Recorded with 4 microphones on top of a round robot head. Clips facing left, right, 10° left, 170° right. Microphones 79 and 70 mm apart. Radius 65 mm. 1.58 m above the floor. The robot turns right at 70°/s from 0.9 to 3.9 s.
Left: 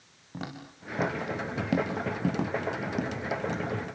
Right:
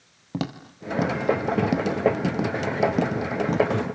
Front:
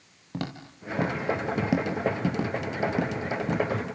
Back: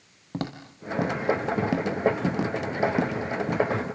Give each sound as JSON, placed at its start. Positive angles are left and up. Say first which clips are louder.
{"t": 0.3, "sound": "footsteps", "louder": "right 9 dB, back 2 dB", "azimuth_deg": -100, "distance_m": 2.0}